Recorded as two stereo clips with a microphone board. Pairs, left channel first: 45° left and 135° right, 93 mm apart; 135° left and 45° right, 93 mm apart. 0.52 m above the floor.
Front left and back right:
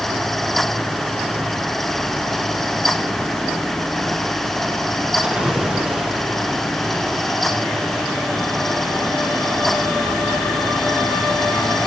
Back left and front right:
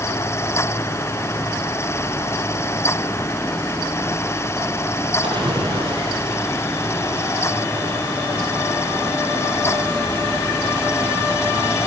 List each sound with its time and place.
5.2 s a splash: 55° right, 7.5 m